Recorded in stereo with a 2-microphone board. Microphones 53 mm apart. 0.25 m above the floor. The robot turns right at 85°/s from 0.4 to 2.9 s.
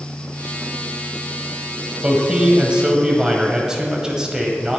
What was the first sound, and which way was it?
A man speaking, 20° right (ahead or behind).